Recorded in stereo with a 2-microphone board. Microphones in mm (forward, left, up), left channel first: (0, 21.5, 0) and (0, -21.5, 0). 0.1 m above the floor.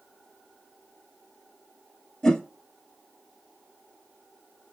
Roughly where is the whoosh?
Centre.